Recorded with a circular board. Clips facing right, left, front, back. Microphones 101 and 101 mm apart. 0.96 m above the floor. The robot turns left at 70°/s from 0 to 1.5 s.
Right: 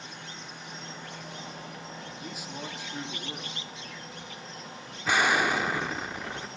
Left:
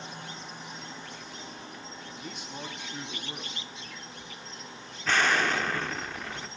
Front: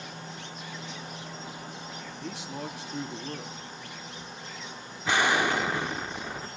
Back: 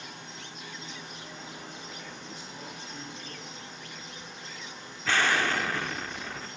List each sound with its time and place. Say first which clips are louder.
0.0 s an insect: left 2 dB, front 3 dB; 30° left, 4.5 m; by 6.6 s 75° right, 4.5 m
2.2 s a man speaking: even, front 6 dB; 5° right, 1.4 m
5.0 s an explosion: right 1 dB, front 2 dB; 35° right, 0.5 m